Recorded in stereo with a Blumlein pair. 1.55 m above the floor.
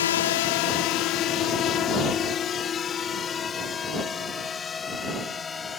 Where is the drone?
60° left; by 5.8 s 15° left.